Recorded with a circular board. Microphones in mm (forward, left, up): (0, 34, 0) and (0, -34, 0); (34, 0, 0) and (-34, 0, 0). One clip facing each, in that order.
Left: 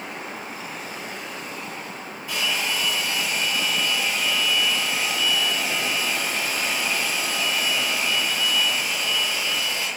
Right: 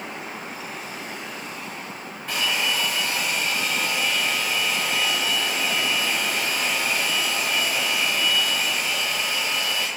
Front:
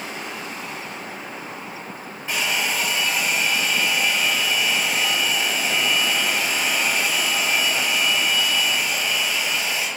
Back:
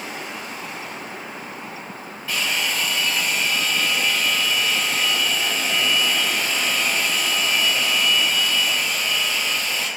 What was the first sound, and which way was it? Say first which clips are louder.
A hair dryer: right 1 dB, front 1 dB; 65° right.